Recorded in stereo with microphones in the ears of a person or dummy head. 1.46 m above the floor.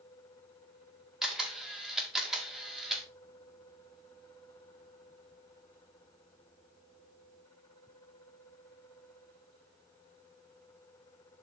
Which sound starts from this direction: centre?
A camera shutter, at 1.2 s.